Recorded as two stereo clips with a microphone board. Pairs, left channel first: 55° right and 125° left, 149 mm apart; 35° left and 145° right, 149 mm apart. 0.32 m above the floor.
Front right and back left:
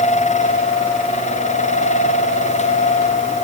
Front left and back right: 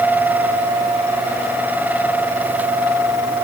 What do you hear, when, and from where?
Only background noise.